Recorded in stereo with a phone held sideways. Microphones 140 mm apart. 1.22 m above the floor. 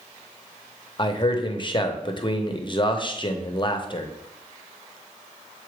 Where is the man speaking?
35° left (ahead or behind), 0.8 m.